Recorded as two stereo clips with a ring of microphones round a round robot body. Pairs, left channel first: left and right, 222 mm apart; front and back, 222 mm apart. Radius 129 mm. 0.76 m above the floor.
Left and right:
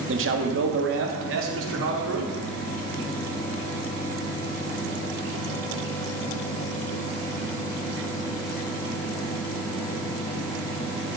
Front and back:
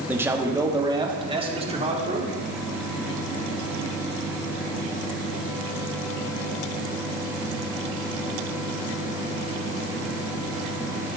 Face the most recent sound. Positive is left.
turn(degrees=-120)